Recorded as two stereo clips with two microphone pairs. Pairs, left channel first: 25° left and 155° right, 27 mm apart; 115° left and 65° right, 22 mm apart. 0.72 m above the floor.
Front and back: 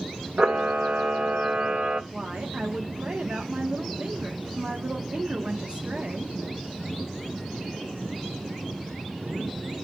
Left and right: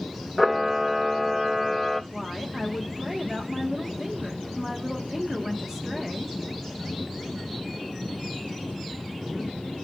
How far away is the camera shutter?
About 0.6 m.